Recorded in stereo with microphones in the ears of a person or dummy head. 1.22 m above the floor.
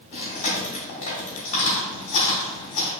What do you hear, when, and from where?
0.1 s chewing: 40° left (ahead or behind), 1.8 m